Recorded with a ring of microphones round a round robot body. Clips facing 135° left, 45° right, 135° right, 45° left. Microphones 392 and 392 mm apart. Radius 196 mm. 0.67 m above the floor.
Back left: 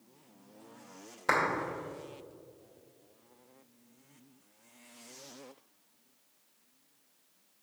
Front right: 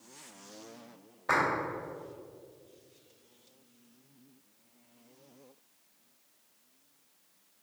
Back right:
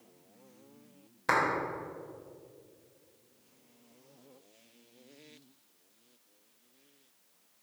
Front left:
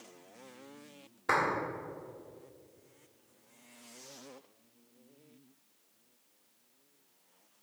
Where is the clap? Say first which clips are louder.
Back left 1 dB, back right 1 dB; 160° left, 2.5 m.